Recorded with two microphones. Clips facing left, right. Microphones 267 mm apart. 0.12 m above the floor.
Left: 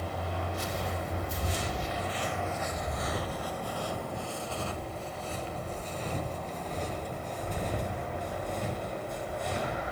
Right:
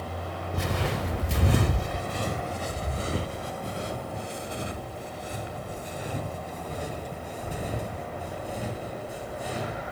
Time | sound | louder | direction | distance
0.5 | footsteps | right 5 dB | 65° right (ahead or behind) | 0.8 m